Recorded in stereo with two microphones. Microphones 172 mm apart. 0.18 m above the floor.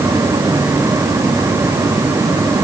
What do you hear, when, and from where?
Only background noise.